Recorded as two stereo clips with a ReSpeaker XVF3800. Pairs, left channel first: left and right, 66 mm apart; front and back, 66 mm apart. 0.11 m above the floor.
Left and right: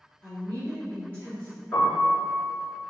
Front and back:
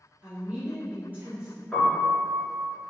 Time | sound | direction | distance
0.2 | a woman speaking | 140° left | 1.9 m
1.7 | a piano | 70° left | 1.8 m